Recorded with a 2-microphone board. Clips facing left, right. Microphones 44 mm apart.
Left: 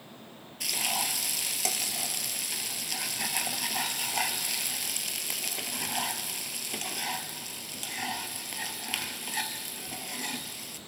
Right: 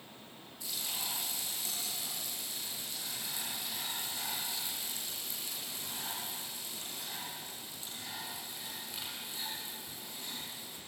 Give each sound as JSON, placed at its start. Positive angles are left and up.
{"t": 0.6, "sound": "frying", "side_deg": 85, "distance_m": 1.7}